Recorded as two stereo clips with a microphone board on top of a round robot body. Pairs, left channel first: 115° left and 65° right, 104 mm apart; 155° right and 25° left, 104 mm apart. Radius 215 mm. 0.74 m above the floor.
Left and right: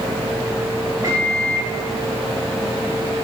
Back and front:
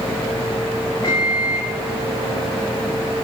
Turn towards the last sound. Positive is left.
turn(degrees=-120)